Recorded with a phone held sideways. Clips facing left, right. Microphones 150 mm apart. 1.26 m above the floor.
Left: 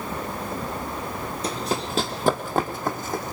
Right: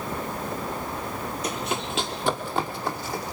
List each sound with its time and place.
1.4 s running footsteps: 30° left (ahead or behind), 1.7 m; by 3.3 s 50° left (ahead or behind), 3.5 m